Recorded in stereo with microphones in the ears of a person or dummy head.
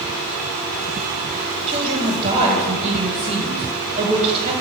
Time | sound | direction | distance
1.7 | a woman speaking | 35° right (ahead or behind) | 1.4 m